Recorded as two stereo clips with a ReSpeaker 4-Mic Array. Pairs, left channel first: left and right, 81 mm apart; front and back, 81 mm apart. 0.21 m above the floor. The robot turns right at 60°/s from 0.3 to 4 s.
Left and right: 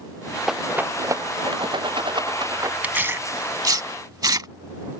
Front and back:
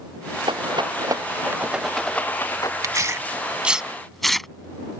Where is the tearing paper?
155° right; by 4.5 s 85° right.